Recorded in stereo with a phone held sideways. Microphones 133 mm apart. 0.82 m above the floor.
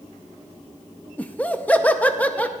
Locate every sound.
1.2 s laughter: 10° left (ahead or behind), 0.6 m